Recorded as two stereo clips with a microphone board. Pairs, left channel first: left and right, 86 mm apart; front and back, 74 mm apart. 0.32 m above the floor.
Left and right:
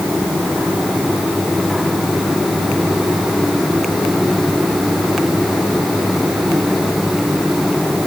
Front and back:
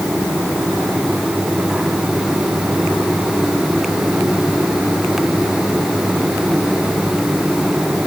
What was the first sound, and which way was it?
Only background noise.